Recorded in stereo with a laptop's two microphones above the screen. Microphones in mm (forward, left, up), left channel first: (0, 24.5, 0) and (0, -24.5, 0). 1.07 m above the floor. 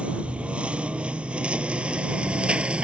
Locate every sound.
0.0 s a lawn mower: 25° right (ahead or behind); by 2.8 s 20° right (ahead or behind)